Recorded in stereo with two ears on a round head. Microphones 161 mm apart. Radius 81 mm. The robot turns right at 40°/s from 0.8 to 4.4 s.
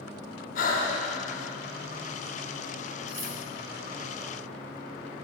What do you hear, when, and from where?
0.6 s breathing: 50° left (ahead or behind), 0.7 m
3.1 s cutlery clinking: 5° right (ahead or behind), 1.2 m; by 3.3 s 5° left (ahead or behind), 1.2 m